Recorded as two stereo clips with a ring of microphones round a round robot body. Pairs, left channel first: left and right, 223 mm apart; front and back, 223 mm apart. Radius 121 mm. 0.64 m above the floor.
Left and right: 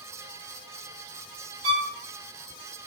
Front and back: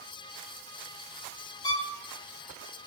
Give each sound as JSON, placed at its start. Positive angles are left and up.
{"t": 1.6, "sound": "a violin", "azimuth_deg": -70, "distance_m": 0.7}